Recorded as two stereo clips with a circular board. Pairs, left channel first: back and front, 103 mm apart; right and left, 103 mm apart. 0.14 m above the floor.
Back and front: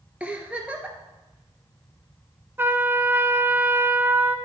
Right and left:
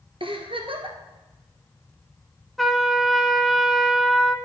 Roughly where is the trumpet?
Ahead.